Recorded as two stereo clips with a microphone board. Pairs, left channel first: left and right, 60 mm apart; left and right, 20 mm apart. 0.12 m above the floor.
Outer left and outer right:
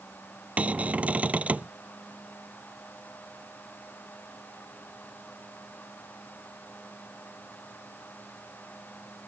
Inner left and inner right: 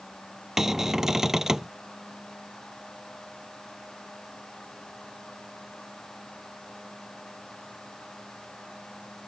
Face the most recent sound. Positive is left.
turn(degrees=-25)  # may be behind; listen again after turning